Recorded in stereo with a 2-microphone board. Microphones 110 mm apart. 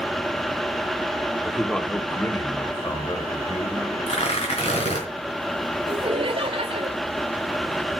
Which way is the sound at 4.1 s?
75° left (ahead or behind).